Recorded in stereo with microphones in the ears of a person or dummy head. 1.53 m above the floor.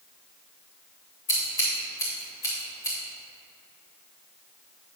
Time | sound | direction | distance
1.3 | scissors | 15° left (ahead or behind) | 1.6 m